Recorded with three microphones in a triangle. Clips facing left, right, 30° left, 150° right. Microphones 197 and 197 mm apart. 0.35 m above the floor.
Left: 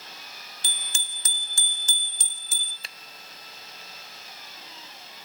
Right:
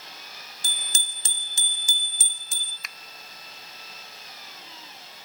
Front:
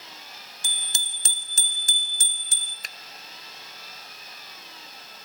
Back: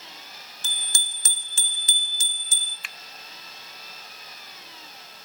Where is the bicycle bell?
50° right, 3 m; by 2.7 s 5° left, 3.5 m.